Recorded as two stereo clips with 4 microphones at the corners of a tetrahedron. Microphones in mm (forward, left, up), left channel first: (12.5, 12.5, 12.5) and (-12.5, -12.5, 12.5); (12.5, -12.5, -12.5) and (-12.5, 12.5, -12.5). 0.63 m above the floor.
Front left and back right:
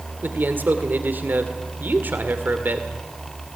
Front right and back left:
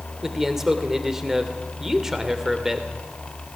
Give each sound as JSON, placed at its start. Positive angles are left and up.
{"t": 0.2, "sound": "a man speaking", "azimuth_deg": -145, "distance_m": 2.0}